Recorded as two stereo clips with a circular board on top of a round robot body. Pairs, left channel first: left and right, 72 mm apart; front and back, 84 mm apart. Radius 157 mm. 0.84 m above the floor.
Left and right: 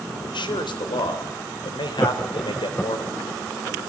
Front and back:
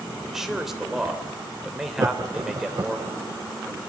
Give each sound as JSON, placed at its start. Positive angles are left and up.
{"t": 0.3, "sound": "a man speaking", "azimuth_deg": 95, "distance_m": 3.0}
{"t": 2.0, "sound": "laughter", "azimuth_deg": 155, "distance_m": 1.1}